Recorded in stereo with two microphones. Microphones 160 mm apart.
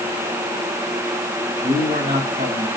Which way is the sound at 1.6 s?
80° right.